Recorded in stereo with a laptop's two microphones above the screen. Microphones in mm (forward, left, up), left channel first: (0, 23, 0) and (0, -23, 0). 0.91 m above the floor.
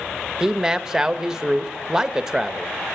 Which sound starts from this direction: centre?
A man speaking, at 0.4 s.